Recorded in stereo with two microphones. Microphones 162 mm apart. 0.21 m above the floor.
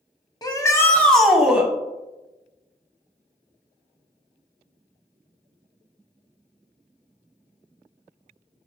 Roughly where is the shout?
Left.